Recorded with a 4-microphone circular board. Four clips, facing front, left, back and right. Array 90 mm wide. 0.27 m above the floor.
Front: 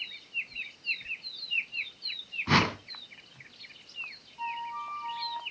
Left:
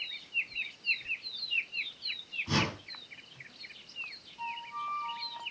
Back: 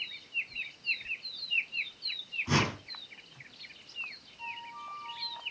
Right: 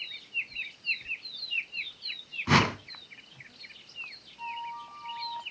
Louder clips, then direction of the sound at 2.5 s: Right 8 dB, front 4 dB; 55° right.